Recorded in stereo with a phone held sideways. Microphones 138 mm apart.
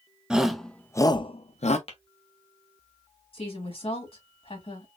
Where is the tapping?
50° left (ahead or behind), 1.0 m.